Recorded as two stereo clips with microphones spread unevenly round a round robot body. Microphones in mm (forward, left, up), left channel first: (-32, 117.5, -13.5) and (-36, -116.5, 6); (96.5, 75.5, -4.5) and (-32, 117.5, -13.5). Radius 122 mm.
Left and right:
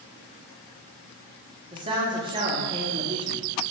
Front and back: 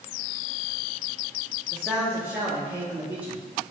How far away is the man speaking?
About 0.9 m.